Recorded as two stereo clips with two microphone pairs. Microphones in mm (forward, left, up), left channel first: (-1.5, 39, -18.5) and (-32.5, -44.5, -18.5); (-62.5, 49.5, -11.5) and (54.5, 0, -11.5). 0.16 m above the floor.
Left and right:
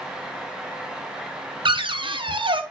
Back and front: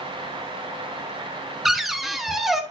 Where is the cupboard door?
110° right, 0.8 m.